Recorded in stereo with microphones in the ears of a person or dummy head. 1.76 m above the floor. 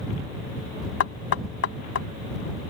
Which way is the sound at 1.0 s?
85° left.